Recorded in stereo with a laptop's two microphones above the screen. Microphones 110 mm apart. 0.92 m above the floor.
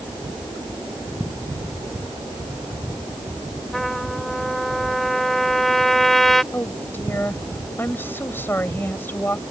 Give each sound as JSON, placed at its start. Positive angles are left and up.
{"t": 3.7, "sound": "a trumpet", "side_deg": 0}
{"t": 6.5, "sound": "a woman speaking", "side_deg": 20}